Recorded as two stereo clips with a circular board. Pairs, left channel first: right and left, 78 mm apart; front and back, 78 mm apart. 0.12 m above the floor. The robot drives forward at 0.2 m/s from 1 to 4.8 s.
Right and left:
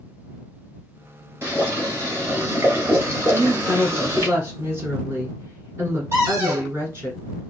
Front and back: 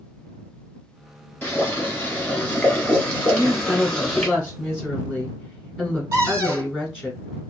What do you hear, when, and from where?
1.4 s boiling: 55° left, 1.6 m; by 4.3 s 90° left, 1.5 m
3.3 s a woman speaking: 85° left, 1.6 m; by 7.1 s 110° left, 1.6 m
6.1 s a cupboard door: 140° left, 1.8 m